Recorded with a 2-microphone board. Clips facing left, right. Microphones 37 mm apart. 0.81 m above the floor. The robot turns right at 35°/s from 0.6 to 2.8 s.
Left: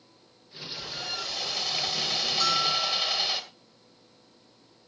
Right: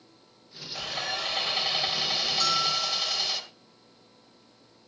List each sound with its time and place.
0.8 s sawing: 55° right, 2 m; by 3.4 s 15° left, 2 m
2.4 s a bell: 5° left (ahead or behind), 3 m; by 3.2 s 20° left (ahead or behind), 3 m